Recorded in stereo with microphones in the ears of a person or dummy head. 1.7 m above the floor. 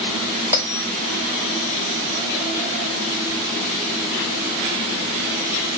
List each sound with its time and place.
0.5 s a bell: 15° right (ahead or behind), 0.6 m